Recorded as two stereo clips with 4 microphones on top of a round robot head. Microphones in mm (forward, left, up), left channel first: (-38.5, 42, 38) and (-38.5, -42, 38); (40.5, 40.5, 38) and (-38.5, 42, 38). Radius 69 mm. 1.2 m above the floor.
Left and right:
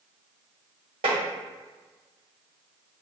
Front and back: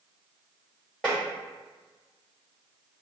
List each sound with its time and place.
1.0 s tapping: 90° right, 1.2 m